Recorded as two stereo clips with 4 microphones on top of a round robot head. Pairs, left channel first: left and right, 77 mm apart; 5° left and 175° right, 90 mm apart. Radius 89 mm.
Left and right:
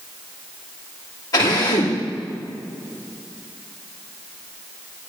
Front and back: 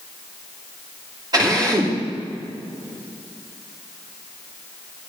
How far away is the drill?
About 6 m.